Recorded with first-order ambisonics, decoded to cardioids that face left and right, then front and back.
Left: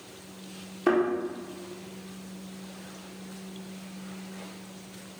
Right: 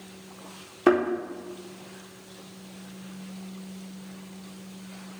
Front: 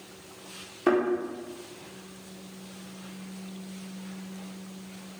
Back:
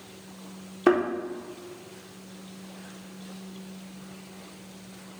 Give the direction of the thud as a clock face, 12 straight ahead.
4 o'clock.